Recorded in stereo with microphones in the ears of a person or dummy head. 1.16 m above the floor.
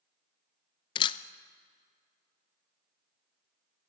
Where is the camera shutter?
30° left (ahead or behind), 0.9 m.